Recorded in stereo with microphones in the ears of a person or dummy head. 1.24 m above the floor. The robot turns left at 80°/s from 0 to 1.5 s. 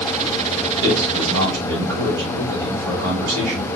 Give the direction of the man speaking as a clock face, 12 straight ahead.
2 o'clock.